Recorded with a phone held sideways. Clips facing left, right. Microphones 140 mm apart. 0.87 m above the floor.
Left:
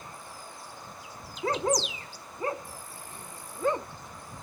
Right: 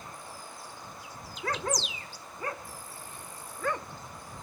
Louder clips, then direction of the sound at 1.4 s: Left 5 dB; 25° left (ahead or behind).